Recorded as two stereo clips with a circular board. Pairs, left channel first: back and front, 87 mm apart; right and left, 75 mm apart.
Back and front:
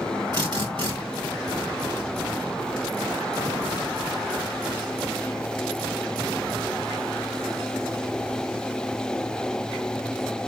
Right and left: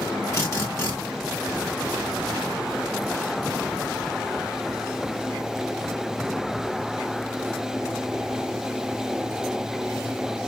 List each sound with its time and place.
0.3 s a drill: 35° right, 2.5 m